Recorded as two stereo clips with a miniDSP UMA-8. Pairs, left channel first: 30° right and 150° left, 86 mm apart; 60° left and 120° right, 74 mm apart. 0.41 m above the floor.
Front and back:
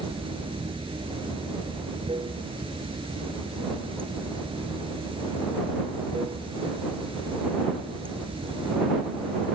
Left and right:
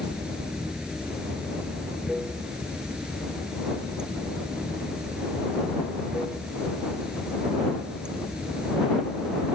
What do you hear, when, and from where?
0.0 s running water: 160° left